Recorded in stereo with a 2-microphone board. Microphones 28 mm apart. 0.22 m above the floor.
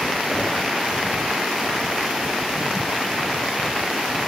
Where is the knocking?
40° left (ahead or behind), 5 m.